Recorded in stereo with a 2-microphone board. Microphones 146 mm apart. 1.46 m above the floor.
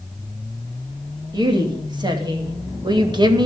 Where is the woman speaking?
30° right (ahead or behind), 3 m.